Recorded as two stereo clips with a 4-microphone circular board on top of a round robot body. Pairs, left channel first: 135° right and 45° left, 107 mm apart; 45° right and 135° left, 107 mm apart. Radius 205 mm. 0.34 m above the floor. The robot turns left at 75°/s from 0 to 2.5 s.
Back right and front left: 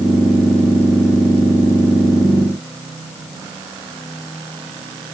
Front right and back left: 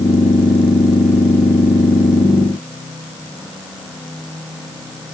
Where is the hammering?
No hammering in this recording.